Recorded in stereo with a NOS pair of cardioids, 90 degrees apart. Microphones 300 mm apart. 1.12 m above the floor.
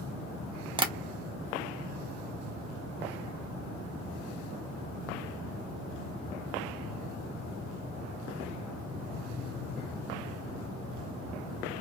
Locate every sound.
0.8 s tapping: 15° right, 0.7 m